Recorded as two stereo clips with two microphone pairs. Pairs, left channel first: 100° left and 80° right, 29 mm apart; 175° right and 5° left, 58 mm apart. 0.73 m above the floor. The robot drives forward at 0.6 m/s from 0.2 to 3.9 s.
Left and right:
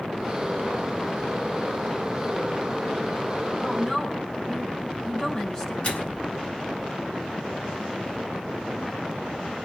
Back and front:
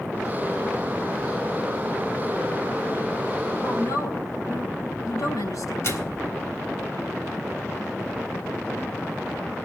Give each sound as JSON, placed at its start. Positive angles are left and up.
{"t": 3.6, "sound": "a woman speaking", "azimuth_deg": 165, "distance_m": 6.5}
{"t": 5.8, "sound": "a microwave", "azimuth_deg": 140, "distance_m": 3.5}